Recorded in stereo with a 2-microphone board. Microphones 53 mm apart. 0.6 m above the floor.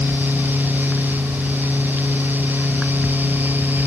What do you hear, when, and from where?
Only background noise.